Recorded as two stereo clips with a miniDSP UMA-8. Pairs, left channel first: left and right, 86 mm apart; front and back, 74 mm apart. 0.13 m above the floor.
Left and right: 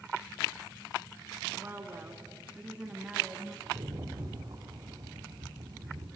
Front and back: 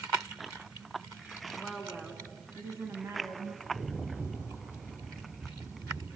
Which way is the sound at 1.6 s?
80° right.